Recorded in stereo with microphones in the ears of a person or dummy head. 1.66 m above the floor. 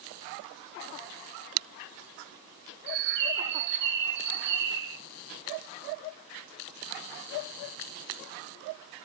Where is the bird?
55° right (ahead or behind), 1.2 m.